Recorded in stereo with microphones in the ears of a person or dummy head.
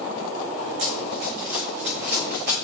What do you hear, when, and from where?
0.8 s running footsteps: 65° right (ahead or behind), 6 m; by 2.5 s 55° right (ahead or behind), 8 m